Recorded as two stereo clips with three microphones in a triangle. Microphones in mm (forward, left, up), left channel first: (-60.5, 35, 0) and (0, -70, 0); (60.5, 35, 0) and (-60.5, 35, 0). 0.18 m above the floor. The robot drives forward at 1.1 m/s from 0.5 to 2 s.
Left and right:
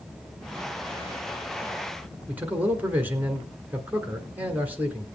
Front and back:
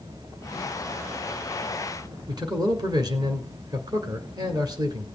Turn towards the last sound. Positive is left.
turn(degrees=-135)